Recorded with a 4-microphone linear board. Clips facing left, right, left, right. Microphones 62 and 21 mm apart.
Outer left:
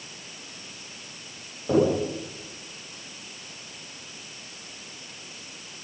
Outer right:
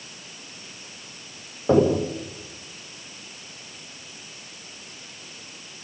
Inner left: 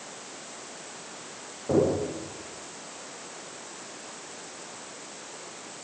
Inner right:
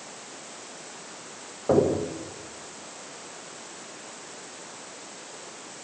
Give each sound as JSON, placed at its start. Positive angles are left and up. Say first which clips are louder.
{"t": 1.7, "sound": "knocking", "louder": "outer right 3 dB, inner right 2 dB", "side_deg": -45, "distance_m": 8.5}